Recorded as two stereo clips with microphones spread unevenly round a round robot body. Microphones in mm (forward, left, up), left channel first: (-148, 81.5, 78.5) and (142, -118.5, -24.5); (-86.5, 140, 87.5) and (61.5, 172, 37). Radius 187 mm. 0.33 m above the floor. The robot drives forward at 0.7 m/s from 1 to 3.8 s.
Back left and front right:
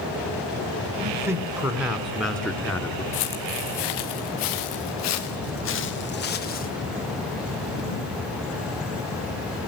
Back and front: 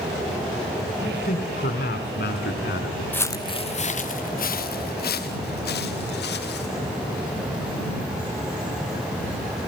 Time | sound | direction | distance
1.0 | a man speaking | 110° right | 3.5 m
3.1 | footsteps | 115° left | 1.5 m